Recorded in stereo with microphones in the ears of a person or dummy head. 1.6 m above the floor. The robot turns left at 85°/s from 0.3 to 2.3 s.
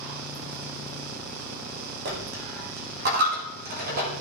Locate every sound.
2.0 s a dropped coin: 50° right (ahead or behind), 1.2 m; by 4.1 s 40° right (ahead or behind), 1.2 m